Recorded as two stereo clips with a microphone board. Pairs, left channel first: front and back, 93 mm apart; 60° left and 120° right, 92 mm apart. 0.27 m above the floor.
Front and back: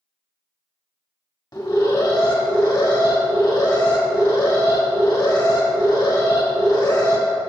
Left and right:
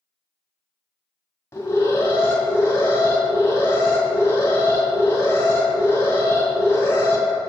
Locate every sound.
1.5 s an alarm: 10° left, 1.4 m